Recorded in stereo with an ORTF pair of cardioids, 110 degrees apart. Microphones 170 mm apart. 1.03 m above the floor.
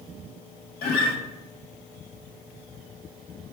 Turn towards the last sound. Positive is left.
turn(degrees=65)